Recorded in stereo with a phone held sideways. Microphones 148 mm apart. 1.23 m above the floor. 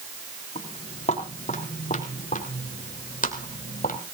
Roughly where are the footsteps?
Left.